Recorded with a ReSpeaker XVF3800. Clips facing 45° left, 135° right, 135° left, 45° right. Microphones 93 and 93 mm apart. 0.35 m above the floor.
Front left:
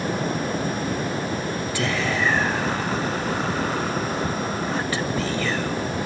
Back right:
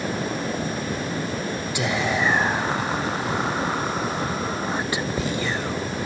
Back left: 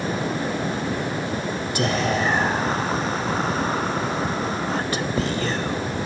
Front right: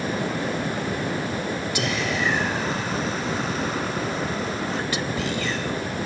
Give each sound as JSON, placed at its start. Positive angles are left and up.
{"t": 1.8, "sound": "whispering", "azimuth_deg": 160, "distance_m": 1.2}